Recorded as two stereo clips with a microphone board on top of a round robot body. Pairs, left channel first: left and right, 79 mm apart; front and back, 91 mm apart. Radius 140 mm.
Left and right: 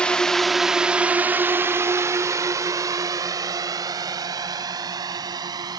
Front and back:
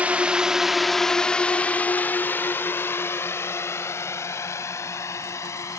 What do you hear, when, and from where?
0.0 s a drone: 140° left; by 5.8 s 60° right